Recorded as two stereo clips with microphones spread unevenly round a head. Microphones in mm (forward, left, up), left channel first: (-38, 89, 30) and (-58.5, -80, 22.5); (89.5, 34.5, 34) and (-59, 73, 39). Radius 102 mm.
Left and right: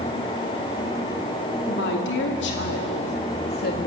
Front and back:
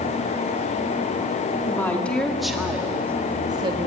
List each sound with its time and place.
1.7 s a woman speaking: 60° left, 3 m; by 3.9 s 110° left, 2 m